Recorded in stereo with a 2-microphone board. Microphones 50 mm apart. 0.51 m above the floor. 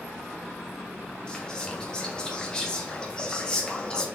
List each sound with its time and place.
1.3 s whispering: 15° left (ahead or behind), 0.7 m